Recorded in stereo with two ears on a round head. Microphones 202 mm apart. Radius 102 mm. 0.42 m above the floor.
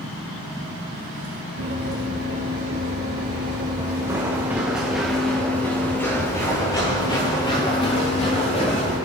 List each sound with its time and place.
1.6 s running footsteps: 45° right (ahead or behind), 4.5 m; by 9.0 s 30° left (ahead or behind), 6.5 m